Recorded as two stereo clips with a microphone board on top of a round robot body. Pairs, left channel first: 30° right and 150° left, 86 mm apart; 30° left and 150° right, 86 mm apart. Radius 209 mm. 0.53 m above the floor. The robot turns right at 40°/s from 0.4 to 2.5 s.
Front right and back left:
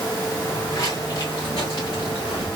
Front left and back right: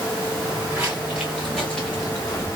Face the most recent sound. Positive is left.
turn(degrees=-35)